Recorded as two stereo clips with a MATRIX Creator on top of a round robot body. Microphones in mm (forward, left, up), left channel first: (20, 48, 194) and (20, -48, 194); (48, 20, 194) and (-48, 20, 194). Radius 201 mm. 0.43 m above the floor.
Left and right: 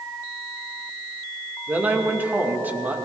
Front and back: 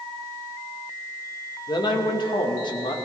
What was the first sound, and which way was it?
A man speaking, 20° right.